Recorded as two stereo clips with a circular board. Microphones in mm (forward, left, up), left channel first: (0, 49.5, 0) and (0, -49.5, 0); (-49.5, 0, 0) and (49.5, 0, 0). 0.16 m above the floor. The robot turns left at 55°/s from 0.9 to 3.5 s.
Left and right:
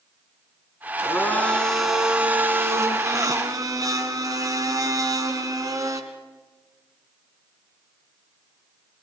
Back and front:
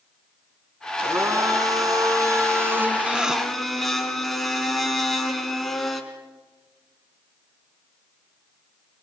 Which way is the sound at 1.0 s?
45° left.